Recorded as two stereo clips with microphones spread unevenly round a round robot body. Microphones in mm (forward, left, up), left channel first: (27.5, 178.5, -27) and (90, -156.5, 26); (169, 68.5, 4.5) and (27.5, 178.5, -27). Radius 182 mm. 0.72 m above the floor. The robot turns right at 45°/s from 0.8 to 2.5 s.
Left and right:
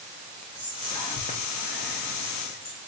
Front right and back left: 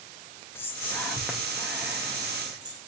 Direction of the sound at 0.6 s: 50° left.